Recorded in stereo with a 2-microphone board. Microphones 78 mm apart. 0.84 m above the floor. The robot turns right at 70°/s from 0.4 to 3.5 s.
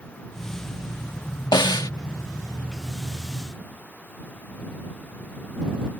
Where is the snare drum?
65° left (ahead or behind); by 1.9 s 55° left (ahead or behind).